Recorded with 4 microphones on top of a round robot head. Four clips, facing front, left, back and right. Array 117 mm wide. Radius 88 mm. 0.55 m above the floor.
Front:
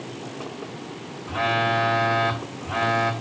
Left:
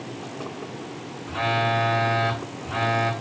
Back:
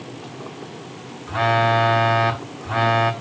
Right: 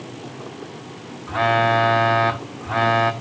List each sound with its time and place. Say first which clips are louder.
1.3 s a phone buzzing: right 6 dB, back 5 dB; 125° right, 1.0 m